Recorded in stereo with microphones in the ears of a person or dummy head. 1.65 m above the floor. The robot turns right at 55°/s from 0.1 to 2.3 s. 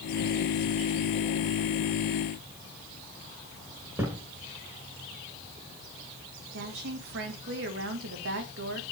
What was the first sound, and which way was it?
A thud, 15° right (ahead or behind).